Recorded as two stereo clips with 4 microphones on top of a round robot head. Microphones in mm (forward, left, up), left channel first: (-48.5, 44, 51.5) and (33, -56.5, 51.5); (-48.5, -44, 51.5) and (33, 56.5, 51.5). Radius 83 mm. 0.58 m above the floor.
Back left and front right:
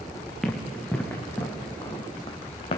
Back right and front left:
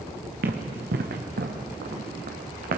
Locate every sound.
0.4 s running footsteps: 40° left, 3.5 m; by 2.8 s 80° left, 3.5 m